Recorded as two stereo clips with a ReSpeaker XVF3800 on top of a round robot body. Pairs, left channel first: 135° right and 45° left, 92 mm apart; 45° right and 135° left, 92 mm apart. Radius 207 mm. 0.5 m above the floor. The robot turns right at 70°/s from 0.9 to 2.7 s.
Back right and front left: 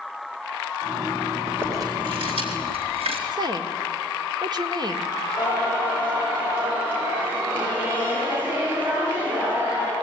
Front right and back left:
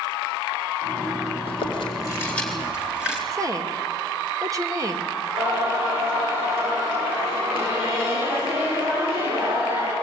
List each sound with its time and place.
1.5 s chewing: 30° right, 4 m; by 3.2 s 55° left, 4 m
3.3 s a woman speaking: 85° left, 1.9 m
5.4 s singing: 115° left, 9 m